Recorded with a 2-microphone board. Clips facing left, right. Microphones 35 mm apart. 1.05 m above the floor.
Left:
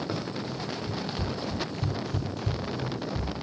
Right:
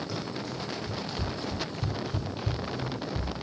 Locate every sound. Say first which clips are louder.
0.1 s running footsteps: left 2 dB; 40° left (ahead or behind), 3 m; by 3.3 s 50° right (ahead or behind), 2 m